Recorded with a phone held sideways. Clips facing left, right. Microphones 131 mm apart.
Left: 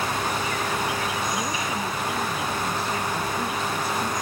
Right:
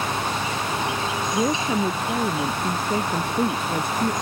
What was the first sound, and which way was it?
An insect, 25° right (ahead or behind).